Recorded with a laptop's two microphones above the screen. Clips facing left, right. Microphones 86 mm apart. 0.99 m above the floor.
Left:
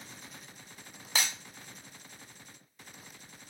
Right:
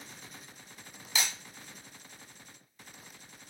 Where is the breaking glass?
50° left (ahead or behind), 1.5 m.